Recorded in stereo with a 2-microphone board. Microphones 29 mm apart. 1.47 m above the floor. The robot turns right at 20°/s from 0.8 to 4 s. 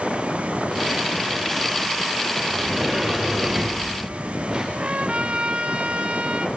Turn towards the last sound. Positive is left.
turn(degrees=-45)  # may be behind; listen again after turning